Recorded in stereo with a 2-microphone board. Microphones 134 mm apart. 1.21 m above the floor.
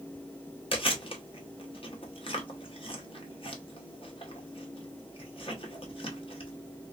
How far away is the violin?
No violin in this recording.